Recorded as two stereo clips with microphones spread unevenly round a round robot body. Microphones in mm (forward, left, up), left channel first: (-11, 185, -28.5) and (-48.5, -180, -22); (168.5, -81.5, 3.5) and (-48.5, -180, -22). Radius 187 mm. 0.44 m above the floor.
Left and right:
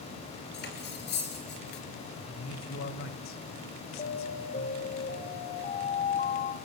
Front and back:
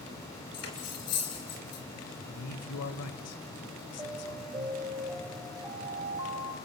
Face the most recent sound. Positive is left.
turn(degrees=140)